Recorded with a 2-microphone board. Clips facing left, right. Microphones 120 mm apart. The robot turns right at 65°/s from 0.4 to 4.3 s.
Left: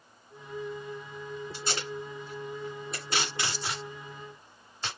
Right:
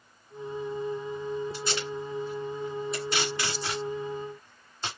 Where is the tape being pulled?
25° left (ahead or behind), 3 m; by 4.9 s 25° right (ahead or behind), 3 m.